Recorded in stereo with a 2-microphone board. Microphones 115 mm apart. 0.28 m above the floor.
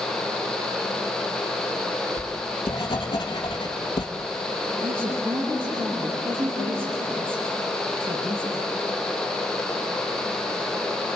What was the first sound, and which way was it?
Writing, 45° left (ahead or behind).